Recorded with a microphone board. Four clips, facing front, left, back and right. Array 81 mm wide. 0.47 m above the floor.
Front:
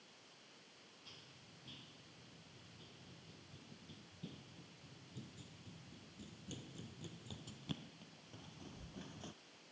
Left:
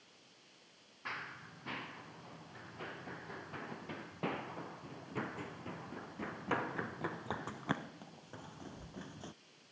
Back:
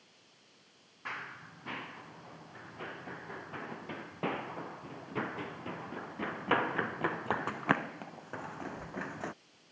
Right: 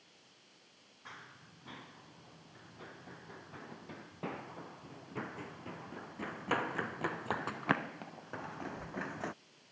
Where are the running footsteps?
155° left; by 9.3 s 135° right.